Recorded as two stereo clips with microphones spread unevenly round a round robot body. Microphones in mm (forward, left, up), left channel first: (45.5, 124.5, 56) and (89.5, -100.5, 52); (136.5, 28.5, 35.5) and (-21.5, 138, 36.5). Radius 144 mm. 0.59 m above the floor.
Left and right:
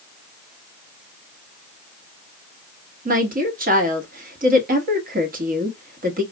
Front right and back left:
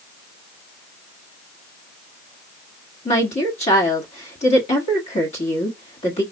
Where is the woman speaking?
65° right, 1.2 m.